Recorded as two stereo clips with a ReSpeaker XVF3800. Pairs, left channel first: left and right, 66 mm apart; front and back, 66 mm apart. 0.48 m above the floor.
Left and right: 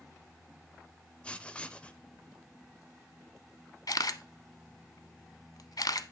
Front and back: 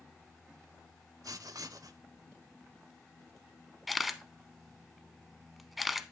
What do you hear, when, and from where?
1.2 s writing: 160° left, 0.6 m
3.9 s a camera shutter: 95° left, 0.6 m